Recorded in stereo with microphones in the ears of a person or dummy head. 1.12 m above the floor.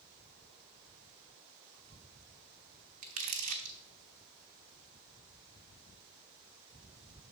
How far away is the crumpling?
About 0.7 m.